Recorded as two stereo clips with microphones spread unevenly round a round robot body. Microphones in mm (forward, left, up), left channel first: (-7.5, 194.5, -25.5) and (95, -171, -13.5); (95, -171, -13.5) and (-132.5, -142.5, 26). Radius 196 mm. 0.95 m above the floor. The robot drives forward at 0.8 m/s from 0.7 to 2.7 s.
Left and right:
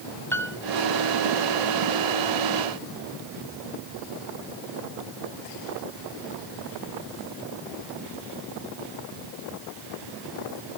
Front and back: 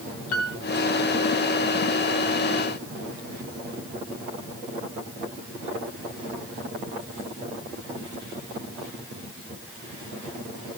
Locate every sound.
0.3 s a piano: 20° left, 1.5 m